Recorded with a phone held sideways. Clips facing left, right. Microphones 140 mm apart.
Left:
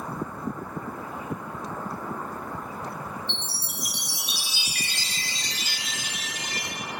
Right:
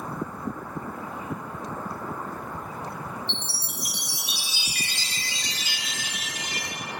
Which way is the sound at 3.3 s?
45° left (ahead or behind).